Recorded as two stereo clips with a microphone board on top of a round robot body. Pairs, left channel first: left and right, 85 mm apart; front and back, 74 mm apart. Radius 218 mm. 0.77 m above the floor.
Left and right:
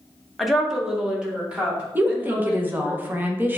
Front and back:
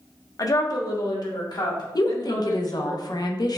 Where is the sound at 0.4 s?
Straight ahead, 1.1 m; by 3.0 s 20° right, 3 m.